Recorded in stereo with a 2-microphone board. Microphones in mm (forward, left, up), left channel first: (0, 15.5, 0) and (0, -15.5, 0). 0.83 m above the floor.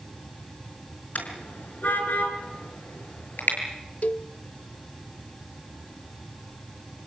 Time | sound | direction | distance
1.1 | a car horn | 80° left | 5 m
4.0 | a cowbell | 55° left (ahead or behind) | 0.6 m